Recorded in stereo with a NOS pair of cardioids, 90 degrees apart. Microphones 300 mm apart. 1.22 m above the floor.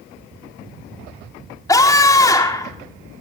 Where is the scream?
10° left, 4 m.